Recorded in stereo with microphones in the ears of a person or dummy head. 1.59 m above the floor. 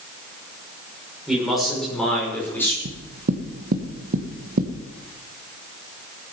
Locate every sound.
1.3 s a man speaking: centre (ahead or behind), 6.5 m; by 2.8 s 15° left (ahead or behind), 5.5 m
2.9 s knocking: 45° right (ahead or behind), 1.5 m